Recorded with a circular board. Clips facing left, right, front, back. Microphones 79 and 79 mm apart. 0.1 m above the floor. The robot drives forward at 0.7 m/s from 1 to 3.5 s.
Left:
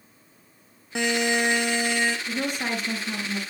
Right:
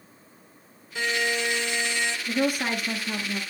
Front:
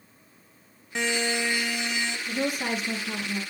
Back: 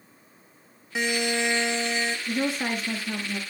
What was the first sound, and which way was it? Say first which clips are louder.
A buzzer: left 3 dB, back 1 dB; 95° left.